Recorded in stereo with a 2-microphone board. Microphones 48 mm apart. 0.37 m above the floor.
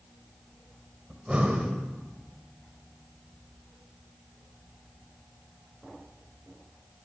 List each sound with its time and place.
1.1 s breathing: 20° right (ahead or behind), 2.0 m